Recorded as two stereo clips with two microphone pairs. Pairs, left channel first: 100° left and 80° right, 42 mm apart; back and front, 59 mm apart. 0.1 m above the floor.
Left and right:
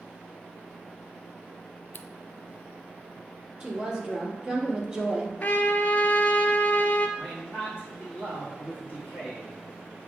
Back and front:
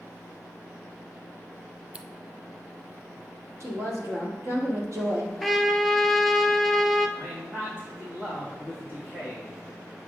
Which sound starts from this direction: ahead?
A woman speaking, at 3.6 s.